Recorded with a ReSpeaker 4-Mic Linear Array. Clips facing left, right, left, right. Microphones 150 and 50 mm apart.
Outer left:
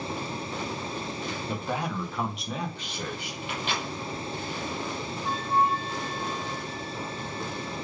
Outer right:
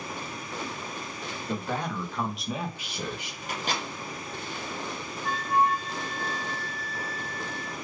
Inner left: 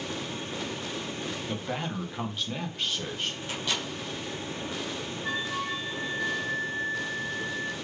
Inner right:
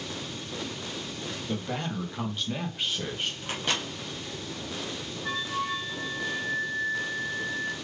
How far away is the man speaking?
About 1.0 m.